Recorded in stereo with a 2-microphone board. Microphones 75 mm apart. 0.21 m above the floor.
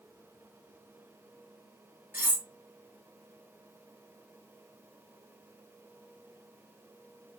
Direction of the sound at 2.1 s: 25° right (ahead or behind).